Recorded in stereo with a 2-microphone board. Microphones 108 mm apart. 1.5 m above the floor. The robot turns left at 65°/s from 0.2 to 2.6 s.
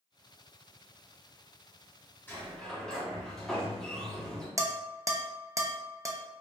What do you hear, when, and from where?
2.3 s a sliding door: 20° left (ahead or behind), 1.2 m; by 4.5 s 5° left (ahead or behind), 1.2 m
4.6 s dishes clattering: 30° right (ahead or behind), 0.5 m